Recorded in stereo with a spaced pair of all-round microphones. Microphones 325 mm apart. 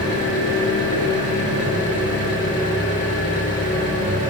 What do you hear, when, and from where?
0.0 s an engine running: 80° left, 7.5 m